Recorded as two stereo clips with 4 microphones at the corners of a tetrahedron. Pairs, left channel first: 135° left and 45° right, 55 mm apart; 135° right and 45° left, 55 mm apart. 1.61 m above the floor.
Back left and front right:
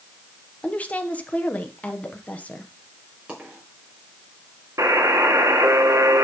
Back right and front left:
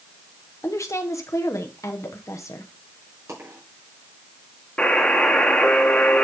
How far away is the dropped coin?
About 4.5 m.